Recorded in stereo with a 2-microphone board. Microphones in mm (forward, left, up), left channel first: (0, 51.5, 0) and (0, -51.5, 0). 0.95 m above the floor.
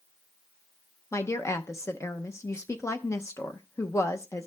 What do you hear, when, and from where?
1.1 s a woman speaking: 30° left (ahead or behind), 0.7 m